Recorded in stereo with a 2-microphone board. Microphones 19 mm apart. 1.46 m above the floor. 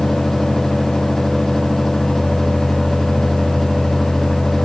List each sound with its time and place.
Only background noise.